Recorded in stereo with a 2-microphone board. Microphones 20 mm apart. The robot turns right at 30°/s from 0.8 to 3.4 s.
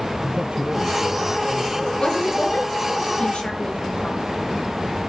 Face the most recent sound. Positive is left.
turn(degrees=60)  # may be behind; listen again after turning